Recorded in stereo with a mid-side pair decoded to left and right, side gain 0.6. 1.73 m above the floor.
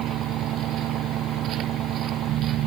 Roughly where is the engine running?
Ahead right.